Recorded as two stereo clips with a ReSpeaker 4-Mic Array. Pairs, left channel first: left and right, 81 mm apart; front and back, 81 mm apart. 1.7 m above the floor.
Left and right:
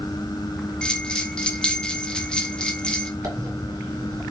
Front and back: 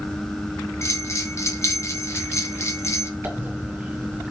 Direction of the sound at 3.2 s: 120° right.